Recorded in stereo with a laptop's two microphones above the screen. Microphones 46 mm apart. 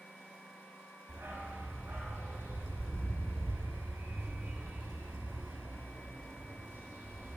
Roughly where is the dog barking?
Right.